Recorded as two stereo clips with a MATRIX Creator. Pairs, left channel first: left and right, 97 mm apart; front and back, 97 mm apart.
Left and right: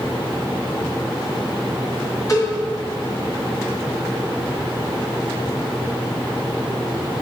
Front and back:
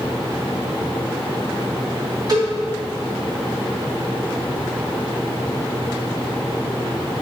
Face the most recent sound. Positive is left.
turn(degrees=140)